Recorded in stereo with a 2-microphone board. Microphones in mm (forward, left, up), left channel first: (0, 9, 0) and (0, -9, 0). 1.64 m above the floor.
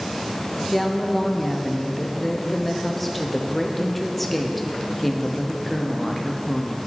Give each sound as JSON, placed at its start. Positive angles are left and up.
{"t": 0.7, "sound": "a woman speaking", "side_deg": 0, "distance_m": 0.9}